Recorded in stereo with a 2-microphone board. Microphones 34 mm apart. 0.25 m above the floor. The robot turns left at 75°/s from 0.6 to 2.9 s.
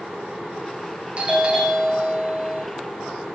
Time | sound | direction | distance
1.2 | a doorbell | 125° right | 2 m